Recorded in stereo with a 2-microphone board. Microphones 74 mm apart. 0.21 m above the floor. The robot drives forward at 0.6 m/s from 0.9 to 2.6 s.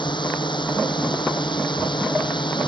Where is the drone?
80° left.